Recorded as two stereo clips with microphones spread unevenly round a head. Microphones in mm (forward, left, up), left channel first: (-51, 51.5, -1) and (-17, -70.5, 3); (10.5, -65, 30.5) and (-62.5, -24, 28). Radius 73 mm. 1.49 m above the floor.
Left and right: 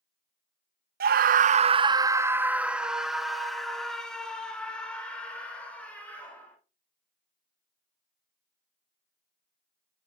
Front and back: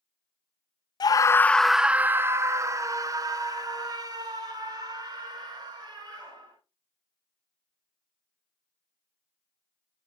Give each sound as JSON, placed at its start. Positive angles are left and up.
{"t": 1.0, "sound": "a scream", "azimuth_deg": -70, "distance_m": 0.5}